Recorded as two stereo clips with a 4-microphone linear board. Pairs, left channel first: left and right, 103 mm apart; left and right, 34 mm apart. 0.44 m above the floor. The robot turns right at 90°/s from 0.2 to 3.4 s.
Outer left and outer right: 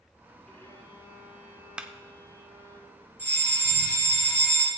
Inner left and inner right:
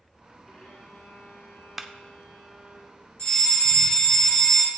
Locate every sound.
0.5 s a violin: 10° left, 4.5 m; by 2.8 s 140° right, 4.5 m
1.8 s a clap: 10° right (ahead or behind), 0.6 m; by 1.9 s 15° right (ahead or behind), 0.6 m
3.2 s a fire alarm: 20° left (ahead or behind), 4.5 m; by 4.7 s 35° left (ahead or behind), 4.5 m